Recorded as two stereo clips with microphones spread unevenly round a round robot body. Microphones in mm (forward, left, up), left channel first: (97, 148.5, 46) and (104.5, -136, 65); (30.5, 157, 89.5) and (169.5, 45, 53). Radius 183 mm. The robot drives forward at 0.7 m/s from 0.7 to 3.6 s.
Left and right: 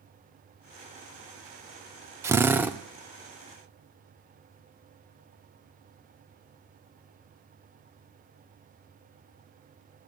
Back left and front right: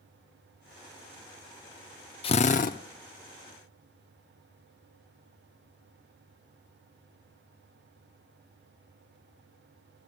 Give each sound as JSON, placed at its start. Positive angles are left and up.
{"t": 2.2, "sound": "a drill", "azimuth_deg": -165, "distance_m": 0.5}